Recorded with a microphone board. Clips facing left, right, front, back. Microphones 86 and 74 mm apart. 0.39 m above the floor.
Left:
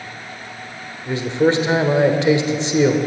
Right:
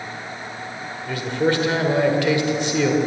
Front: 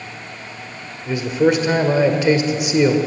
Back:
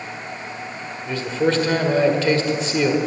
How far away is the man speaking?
About 1.5 m.